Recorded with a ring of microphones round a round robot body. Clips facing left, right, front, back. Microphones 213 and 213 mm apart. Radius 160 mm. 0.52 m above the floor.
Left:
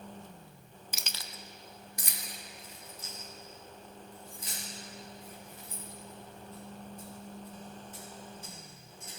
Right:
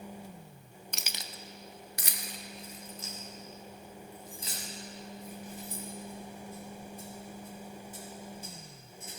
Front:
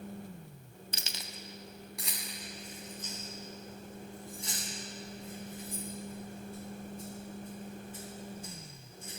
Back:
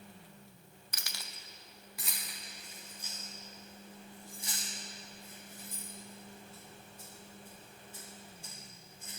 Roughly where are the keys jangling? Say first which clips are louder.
Right 1 dB, front 5 dB; ahead.